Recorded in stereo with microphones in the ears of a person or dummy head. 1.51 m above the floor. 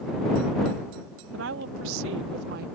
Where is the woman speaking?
80° right; by 2.7 s 55° right (ahead or behind).